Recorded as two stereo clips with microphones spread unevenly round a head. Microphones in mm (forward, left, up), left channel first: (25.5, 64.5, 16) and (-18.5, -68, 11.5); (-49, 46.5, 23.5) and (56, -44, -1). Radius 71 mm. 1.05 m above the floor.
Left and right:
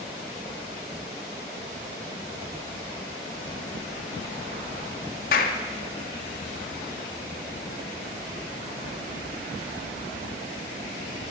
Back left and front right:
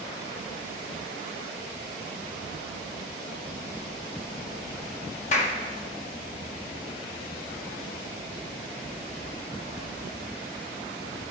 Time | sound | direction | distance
5.3 | a clap | 95° left | 2 m